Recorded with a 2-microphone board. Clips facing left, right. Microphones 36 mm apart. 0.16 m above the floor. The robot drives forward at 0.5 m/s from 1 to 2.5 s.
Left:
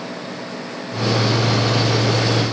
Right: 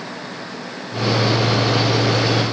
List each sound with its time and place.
Only background noise.